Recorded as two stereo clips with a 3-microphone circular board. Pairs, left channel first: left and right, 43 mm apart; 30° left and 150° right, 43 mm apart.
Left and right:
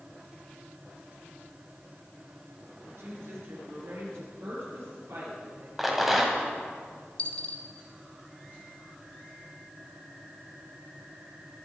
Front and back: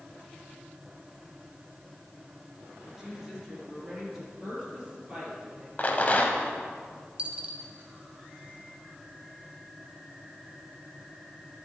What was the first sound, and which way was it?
A woman speaking, 70° right.